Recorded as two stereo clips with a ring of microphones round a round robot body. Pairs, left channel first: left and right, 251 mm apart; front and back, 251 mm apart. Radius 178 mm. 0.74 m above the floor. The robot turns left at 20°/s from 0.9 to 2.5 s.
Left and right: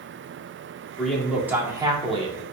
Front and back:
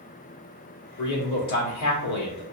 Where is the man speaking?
5° left, 1.3 m; by 2.4 s 25° right, 1.3 m.